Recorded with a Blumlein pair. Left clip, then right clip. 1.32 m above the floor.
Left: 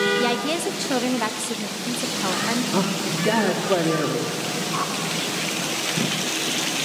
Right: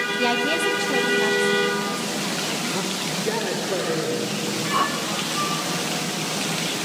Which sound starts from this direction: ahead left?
A man speaking, at 2.7 s.